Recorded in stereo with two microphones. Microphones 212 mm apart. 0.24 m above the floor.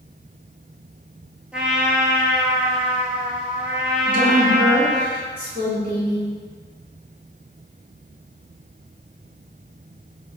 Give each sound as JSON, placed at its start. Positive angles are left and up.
{"t": 1.5, "sound": "a trumpet", "side_deg": -5, "distance_m": 1.1}
{"t": 4.1, "sound": "a woman speaking", "side_deg": -50, "distance_m": 1.9}